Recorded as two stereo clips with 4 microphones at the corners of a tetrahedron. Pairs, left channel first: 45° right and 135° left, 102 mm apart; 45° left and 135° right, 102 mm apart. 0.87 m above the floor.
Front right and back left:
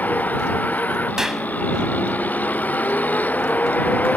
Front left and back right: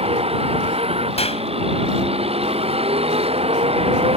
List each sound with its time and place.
0.0 s a vehicle: 120° right
1.2 s a clap: 50° left